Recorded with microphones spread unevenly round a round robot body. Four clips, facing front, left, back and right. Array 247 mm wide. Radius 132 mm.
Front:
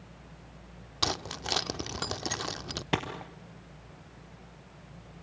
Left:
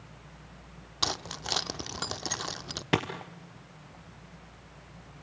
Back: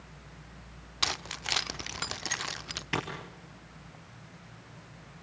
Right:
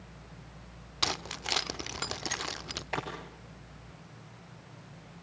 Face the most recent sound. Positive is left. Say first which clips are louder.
# left 7 dB, front 2 dB
turn(degrees=75)